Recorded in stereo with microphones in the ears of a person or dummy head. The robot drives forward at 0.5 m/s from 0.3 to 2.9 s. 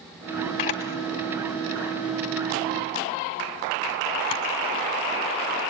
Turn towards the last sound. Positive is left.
turn(degrees=25)  # may be behind; listen again after turning